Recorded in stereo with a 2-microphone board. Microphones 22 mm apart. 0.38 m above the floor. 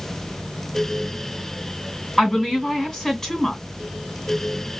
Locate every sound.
2.2 s a woman speaking: 15° left (ahead or behind), 2.5 m